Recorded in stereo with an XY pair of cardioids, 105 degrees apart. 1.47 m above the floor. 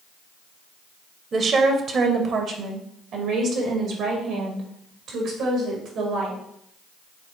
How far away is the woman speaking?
About 1.1 m.